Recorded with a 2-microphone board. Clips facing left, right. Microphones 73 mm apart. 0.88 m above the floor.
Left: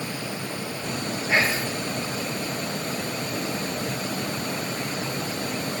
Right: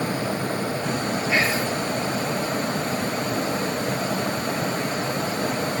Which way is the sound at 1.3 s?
35° left (ahead or behind).